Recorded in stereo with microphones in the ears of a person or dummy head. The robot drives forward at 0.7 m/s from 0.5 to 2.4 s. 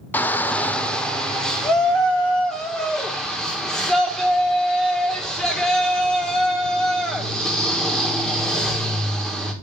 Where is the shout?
5° left (ahead or behind), 0.6 m; by 9.5 s centre (ahead or behind), 1.8 m.